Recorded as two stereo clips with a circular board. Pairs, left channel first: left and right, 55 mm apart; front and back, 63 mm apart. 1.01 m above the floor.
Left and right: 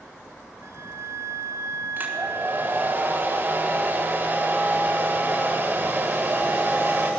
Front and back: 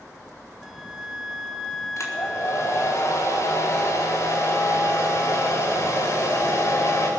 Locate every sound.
0.6 s a flute: 90° right, 1.1 m
2.0 s a hair dryer: 35° right, 4 m